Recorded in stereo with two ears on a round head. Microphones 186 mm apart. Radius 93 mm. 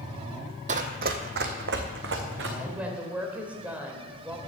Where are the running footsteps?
35° right (ahead or behind), 1.1 m; by 2.5 s 60° right (ahead or behind), 2.5 m.